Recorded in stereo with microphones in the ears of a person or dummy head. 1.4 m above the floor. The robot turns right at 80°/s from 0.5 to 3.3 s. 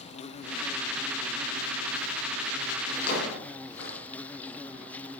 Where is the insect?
145° left, 0.7 m; by 5.2 s 10° left, 0.7 m.